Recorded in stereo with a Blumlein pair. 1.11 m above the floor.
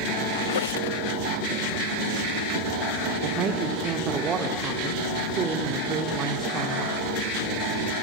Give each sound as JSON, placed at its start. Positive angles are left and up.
{"t": 0.3, "sound": "a squeak", "azimuth_deg": 65, "distance_m": 0.5}
{"t": 3.2, "sound": "a man speaking", "azimuth_deg": -25, "distance_m": 3.0}